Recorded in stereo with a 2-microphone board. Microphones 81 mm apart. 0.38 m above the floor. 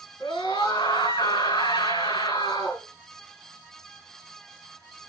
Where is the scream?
65° left (ahead or behind), 4.5 m.